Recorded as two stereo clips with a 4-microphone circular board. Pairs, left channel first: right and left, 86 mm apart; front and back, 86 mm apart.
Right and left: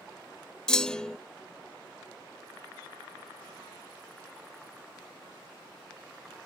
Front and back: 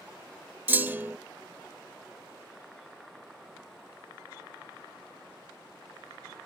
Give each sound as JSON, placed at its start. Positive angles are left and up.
{"t": 0.7, "sound": "a clunk", "azimuth_deg": -160}